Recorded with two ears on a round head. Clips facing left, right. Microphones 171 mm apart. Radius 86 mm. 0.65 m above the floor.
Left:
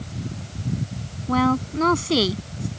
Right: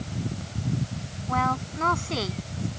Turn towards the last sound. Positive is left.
turn(degrees=50)  # may be behind; listen again after turning